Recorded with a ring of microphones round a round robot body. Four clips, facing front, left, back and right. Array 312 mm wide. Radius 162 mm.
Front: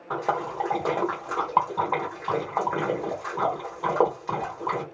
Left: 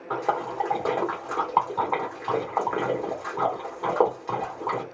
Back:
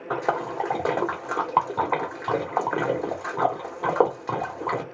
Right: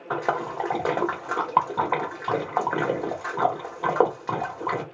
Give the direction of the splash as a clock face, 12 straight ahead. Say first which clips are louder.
Even, back 1 dB; 4 o'clock.